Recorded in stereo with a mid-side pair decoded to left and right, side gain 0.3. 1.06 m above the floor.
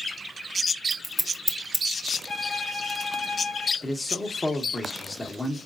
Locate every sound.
0.9 s scissors: 5° right, 1.2 m
2.3 s a violin: 45° left, 1.0 m
3.8 s a man speaking: 30° left, 1.4 m